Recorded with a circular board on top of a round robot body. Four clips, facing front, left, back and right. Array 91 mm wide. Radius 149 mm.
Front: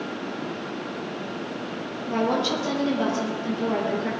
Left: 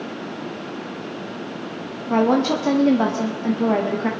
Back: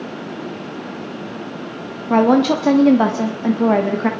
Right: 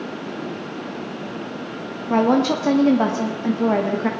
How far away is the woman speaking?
About 1.6 m.